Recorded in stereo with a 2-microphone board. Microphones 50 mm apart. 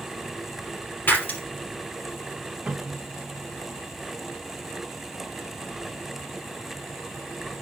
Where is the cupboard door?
15° right (ahead or behind), 1.8 m.